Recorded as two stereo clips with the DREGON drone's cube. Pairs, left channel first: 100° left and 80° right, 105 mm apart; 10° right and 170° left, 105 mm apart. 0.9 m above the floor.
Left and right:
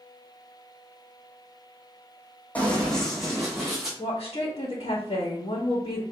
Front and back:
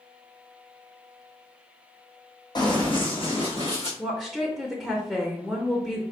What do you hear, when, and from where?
2.5 s running footsteps: 25° left, 1.6 m; by 3.9 s 5° left, 3 m
4.0 s a woman speaking: 70° left, 1.0 m